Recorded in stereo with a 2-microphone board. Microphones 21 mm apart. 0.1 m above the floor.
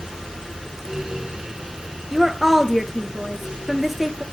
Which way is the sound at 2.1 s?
10° right (ahead or behind).